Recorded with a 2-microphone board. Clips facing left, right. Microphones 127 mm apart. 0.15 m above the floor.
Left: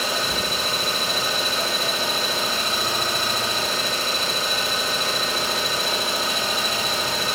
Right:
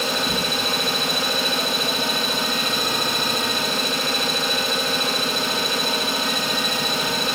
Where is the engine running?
60° right (ahead or behind), 3.5 m.